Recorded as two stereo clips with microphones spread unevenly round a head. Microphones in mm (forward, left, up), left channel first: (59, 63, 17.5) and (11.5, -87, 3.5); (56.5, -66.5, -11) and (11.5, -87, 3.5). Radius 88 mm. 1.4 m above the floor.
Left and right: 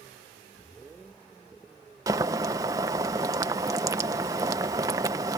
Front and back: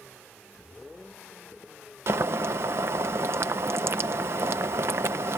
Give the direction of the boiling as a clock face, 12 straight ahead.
6 o'clock.